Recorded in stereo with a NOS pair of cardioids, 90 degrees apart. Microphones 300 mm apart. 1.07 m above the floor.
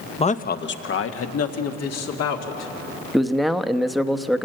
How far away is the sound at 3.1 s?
About 1.0 m.